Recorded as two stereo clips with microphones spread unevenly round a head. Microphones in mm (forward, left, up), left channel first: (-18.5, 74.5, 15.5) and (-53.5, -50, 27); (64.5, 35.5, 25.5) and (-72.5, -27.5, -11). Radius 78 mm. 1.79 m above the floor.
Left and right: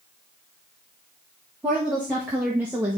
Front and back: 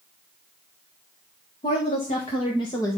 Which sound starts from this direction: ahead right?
A woman speaking, at 1.6 s.